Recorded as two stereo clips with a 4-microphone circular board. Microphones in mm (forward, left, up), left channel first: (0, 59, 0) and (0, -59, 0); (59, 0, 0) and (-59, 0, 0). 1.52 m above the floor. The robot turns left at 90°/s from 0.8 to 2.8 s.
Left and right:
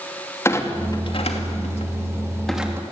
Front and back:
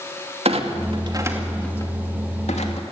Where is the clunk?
155° left, 2.5 m; by 2.8 s 25° right, 2.5 m.